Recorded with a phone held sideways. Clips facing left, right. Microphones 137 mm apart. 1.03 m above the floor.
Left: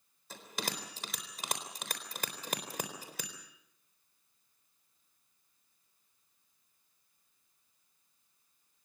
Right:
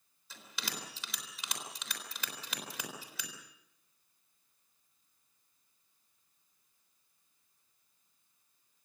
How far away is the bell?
About 3.5 m.